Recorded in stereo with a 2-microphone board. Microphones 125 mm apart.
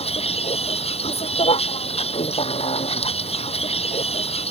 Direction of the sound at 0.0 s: 60° left (ahead or behind).